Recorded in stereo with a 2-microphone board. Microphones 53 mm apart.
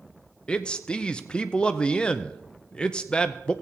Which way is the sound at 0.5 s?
20° left (ahead or behind).